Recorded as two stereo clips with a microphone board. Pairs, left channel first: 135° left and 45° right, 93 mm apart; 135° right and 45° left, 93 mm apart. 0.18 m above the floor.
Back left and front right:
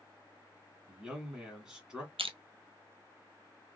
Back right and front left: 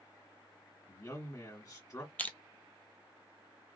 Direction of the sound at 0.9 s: 125° right.